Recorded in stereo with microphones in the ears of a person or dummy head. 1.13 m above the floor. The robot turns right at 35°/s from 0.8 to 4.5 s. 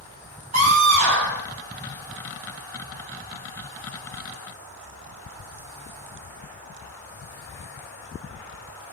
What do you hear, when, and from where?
0.5 s a scream: 45° right (ahead or behind), 3.5 m; by 1.4 s 70° right (ahead or behind), 3.5 m